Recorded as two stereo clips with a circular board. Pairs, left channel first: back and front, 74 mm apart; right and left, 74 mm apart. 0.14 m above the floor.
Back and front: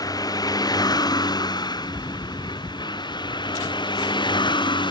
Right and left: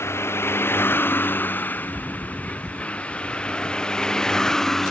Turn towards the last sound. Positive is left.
turn(degrees=-175)